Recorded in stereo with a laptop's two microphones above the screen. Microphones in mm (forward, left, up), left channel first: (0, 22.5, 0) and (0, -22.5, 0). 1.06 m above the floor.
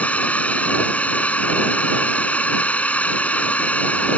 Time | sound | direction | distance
0.0 | a drone | 35° left (ahead or behind) | ?